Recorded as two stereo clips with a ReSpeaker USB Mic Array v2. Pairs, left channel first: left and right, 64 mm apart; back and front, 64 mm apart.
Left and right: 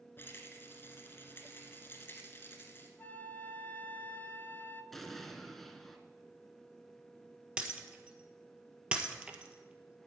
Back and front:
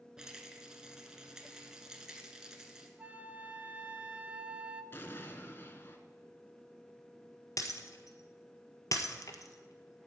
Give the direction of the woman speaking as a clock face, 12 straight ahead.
I don't hear a woman speaking.